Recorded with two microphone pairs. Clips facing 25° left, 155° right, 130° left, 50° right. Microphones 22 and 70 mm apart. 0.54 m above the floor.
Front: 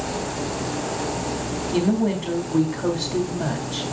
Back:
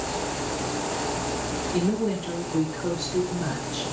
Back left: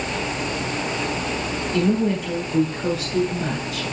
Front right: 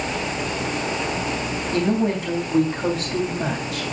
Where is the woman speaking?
5° left, 3 m.